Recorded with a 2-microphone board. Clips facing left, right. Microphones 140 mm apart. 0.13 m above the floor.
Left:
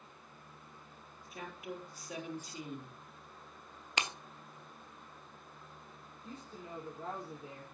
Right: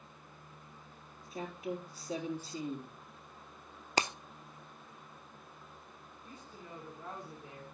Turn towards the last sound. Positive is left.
turn(degrees=25)  # may be behind; listen again after turning